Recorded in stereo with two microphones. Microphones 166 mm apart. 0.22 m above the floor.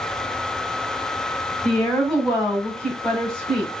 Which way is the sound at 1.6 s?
5° left (ahead or behind).